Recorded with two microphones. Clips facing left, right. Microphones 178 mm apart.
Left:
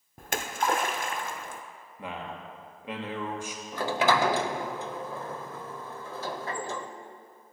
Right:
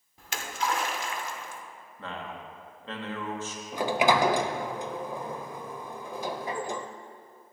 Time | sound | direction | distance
0.2 | a splash | 55° left (ahead or behind) | 0.7 m
2.0 | a man speaking | 15° left (ahead or behind) | 1.2 m
3.7 | a sliding door | 15° right (ahead or behind) | 0.5 m